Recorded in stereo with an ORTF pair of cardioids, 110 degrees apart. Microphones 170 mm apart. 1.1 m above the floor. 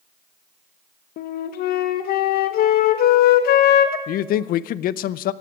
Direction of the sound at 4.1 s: 65° left.